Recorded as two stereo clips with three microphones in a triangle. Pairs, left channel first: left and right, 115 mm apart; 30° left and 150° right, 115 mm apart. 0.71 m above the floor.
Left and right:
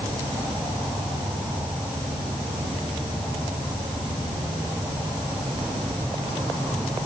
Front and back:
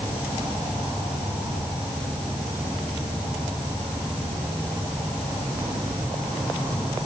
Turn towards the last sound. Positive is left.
turn(degrees=-130)